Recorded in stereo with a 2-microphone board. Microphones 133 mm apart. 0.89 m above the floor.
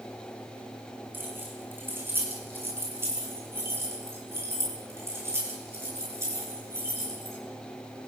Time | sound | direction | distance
1.1 | keys jangling | 15° right (ahead or behind) | 6 m